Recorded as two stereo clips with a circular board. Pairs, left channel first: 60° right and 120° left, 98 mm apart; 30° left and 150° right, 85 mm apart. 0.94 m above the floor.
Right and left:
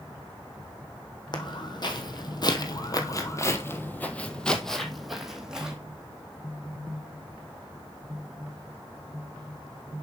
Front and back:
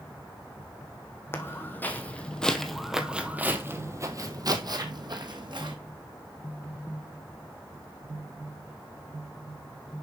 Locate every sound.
1.3 s footsteps: 25° right, 1.7 m; by 5.8 s 160° right, 1.9 m